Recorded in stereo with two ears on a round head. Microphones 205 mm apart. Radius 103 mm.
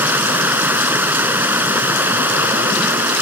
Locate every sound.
0.0 s running water: 10° right (ahead or behind)